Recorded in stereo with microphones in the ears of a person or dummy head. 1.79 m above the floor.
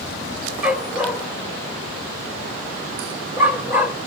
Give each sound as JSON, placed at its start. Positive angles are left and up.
{"t": 0.6, "sound": "a dog barking", "side_deg": -10, "distance_m": 1.6}